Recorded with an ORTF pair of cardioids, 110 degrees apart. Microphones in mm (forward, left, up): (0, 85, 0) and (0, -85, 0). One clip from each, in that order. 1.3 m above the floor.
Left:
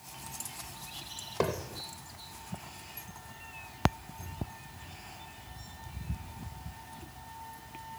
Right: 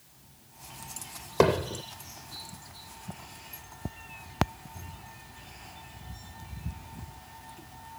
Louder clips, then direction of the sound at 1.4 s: Right 9 dB; 50° right.